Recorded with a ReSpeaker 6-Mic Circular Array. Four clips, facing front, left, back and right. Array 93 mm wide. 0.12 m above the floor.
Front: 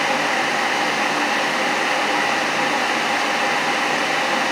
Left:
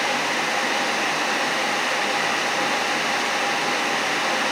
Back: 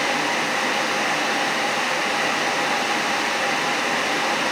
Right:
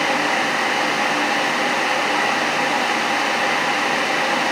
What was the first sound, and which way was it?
Only background noise.